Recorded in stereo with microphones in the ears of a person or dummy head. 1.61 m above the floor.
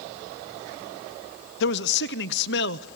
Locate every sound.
1.6 s a man speaking: 65° left (ahead or behind), 0.7 m